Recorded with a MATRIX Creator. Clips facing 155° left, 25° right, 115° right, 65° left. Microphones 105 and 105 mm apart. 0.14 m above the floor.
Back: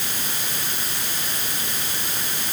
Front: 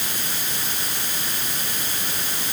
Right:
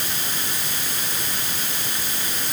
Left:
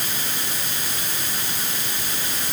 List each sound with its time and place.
Only background noise.